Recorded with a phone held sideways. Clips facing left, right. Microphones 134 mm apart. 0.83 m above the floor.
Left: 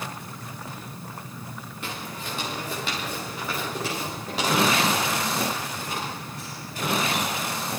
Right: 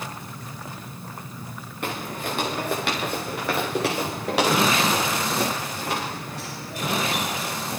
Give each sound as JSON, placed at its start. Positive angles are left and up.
{"t": 1.8, "sound": "footsteps", "side_deg": -55, "distance_m": 5.0}